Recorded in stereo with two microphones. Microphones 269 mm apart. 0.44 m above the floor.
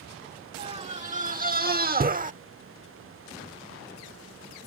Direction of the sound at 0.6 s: 20° right (ahead or behind).